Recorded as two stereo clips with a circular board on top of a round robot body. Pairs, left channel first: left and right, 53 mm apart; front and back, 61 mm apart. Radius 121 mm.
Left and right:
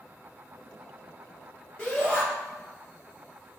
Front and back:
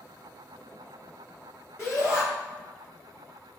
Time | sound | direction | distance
1.8 | a shout | 25° left | 1.1 m